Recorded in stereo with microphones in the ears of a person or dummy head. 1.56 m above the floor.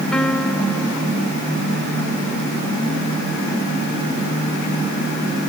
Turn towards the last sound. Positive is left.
turn(degrees=10)  # may be behind; listen again after turning